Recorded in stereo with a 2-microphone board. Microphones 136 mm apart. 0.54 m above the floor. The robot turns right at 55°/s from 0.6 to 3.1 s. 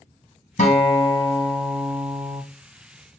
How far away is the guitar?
About 1.5 m.